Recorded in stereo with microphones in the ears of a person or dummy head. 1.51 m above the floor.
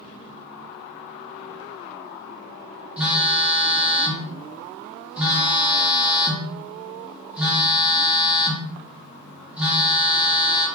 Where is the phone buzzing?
10° right (ahead or behind), 1.0 m.